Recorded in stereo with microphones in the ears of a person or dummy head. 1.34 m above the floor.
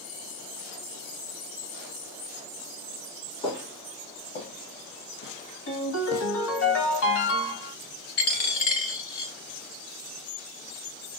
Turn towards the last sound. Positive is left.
turn(degrees=60)  # may be behind; listen again after turning